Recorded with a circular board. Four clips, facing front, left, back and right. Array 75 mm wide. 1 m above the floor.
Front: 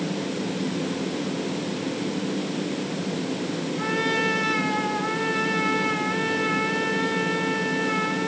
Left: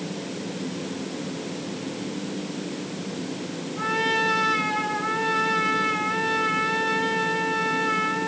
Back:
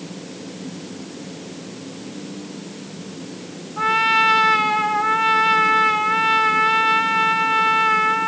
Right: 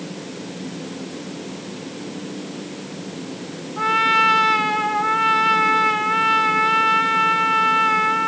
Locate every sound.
3.8 s a trumpet: 140° right, 1.8 m